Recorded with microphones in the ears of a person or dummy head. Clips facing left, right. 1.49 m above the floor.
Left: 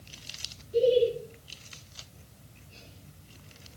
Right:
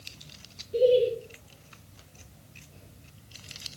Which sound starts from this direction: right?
Laughter, at 0.7 s.